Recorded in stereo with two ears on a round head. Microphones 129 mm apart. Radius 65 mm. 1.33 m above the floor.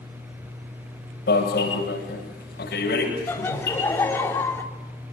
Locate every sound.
1.3 s an alarm: 75° left (ahead or behind), 9.5 m
3.3 s laughter: 15° left (ahead or behind), 3.5 m